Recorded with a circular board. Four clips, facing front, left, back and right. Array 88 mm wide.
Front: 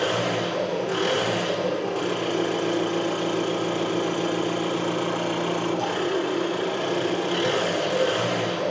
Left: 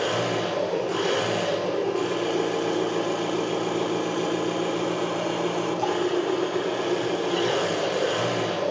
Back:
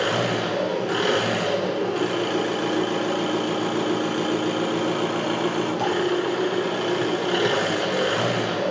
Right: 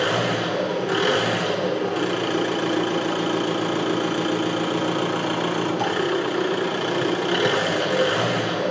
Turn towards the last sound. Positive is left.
turn(degrees=-115)